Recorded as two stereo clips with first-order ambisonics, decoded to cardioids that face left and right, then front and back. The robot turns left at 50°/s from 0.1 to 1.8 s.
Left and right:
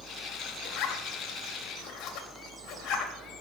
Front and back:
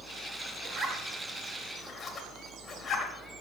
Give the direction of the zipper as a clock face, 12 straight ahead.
8 o'clock.